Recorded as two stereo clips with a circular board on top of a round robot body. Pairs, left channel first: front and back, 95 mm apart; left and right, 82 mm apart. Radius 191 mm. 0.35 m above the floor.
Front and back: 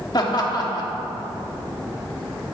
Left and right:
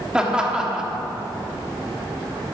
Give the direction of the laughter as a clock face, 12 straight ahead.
12 o'clock.